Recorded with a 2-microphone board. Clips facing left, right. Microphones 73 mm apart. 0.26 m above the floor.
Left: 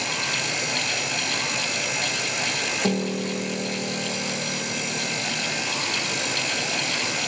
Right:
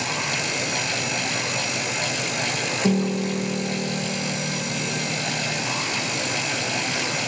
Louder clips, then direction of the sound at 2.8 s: Right 4 dB; 10° left (ahead or behind).